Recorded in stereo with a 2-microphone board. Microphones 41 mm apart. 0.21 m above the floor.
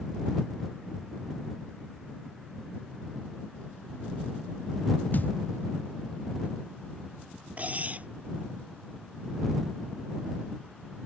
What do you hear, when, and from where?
5.1 s a thud: 50° left (ahead or behind)
7.6 s cutlery clinking: 40° right (ahead or behind)